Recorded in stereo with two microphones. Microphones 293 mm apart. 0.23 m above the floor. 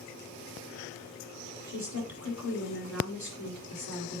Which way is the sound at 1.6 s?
75° left (ahead or behind).